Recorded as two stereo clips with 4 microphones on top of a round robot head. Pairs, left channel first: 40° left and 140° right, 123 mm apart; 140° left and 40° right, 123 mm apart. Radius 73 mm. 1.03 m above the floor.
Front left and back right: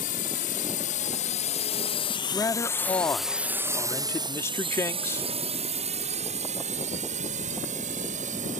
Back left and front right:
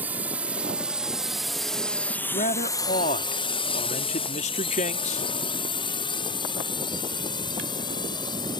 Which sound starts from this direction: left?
A man speaking, at 2.3 s.